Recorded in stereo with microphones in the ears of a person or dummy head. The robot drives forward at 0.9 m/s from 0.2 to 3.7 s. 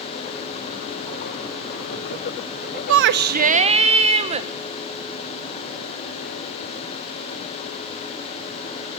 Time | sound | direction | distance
2.9 | a shout | 70° right (ahead or behind) | 0.7 m